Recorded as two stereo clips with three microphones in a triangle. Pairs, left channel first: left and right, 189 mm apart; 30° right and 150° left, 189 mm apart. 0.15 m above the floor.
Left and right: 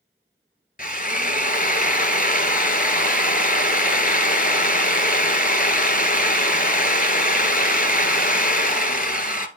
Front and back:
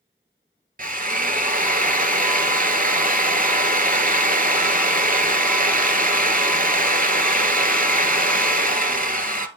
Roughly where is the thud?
No thud in this recording.